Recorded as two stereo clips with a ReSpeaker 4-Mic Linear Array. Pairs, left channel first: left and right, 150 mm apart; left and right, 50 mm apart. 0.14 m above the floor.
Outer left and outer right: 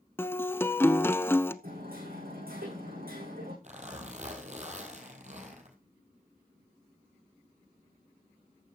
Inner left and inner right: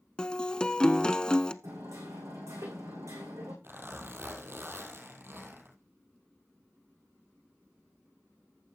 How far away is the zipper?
About 3 m.